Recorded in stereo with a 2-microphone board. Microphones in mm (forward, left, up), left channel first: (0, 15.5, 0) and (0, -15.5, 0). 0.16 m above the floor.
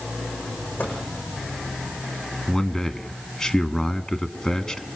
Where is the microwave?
80° left, 7 m.